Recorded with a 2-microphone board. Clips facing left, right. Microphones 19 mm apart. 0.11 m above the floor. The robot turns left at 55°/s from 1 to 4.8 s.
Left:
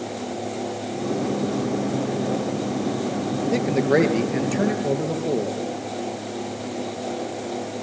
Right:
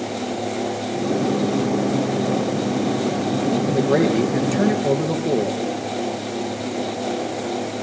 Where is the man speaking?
55° left, 2.5 m; by 5.6 s 15° right, 2.5 m.